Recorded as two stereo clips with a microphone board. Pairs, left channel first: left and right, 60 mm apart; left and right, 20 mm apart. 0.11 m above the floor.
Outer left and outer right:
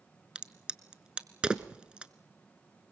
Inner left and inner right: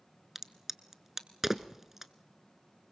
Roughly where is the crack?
Centre.